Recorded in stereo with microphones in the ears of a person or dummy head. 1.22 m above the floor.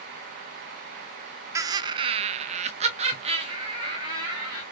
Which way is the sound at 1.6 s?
15° right (ahead or behind).